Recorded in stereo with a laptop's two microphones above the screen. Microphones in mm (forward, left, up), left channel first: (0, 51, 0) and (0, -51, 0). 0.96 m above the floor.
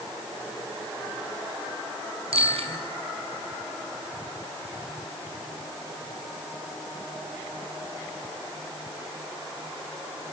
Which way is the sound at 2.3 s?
80° right.